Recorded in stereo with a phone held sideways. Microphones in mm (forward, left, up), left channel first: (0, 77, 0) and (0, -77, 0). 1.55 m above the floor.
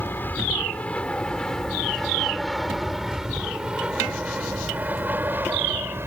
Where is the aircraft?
15° left (ahead or behind); by 6.1 s 15° right (ahead or behind).